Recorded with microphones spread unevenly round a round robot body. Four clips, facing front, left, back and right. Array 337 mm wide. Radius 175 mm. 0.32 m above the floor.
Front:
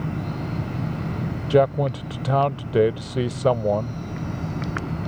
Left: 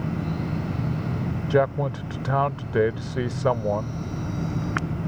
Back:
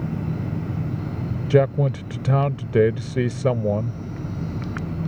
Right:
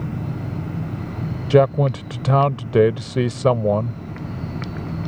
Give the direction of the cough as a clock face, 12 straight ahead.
No cough in this recording.